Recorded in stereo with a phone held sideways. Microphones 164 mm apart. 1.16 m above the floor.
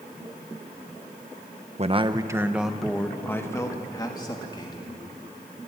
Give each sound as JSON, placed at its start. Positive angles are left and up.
{"t": 1.8, "sound": "a man speaking", "side_deg": -40, "distance_m": 1.0}